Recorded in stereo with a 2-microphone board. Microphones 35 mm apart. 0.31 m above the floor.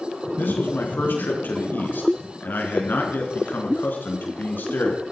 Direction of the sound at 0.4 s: 60° left (ahead or behind).